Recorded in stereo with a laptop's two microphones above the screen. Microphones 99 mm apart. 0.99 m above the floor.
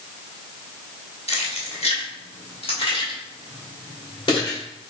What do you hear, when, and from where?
1.3 s keys jangling: 85° left, 1.0 m; by 4.6 s 45° left (ahead or behind), 2.5 m